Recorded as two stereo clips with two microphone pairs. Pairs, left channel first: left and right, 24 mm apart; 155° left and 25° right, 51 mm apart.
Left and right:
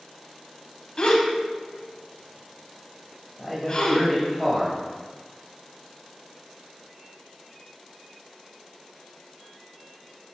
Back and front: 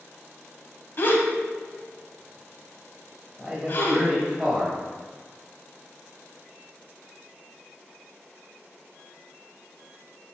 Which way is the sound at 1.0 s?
130° left.